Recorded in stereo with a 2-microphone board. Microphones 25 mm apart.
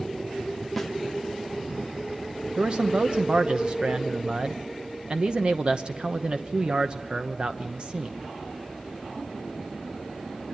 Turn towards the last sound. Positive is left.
turn(degrees=-35)  # may be behind; listen again after turning